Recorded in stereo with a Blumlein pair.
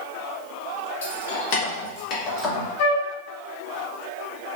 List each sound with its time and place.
1.0 s keys jangling: 65° left, 1.1 m; by 2.7 s 15° left, 1.1 m
2.8 s a flute: 60° left, 1.5 m